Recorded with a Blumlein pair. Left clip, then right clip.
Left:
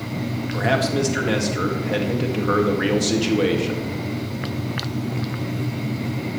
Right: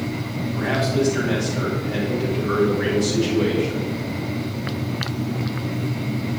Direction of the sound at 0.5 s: 60° left.